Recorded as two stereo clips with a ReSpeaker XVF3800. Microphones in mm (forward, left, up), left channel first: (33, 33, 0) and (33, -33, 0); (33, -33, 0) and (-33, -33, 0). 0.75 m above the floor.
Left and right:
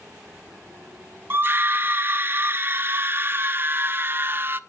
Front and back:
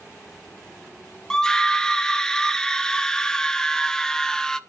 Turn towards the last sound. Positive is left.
turn(degrees=-70)